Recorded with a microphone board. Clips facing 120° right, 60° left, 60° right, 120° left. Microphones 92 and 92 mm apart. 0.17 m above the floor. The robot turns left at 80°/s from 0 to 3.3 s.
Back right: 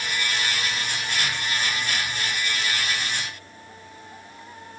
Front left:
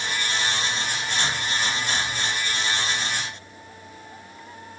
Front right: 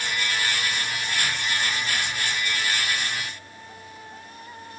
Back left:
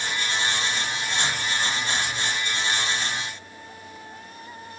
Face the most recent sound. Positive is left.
No sound to turn to.